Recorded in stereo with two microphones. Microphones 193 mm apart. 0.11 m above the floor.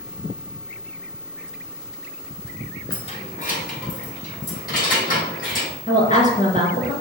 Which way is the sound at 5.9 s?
40° left (ahead or behind).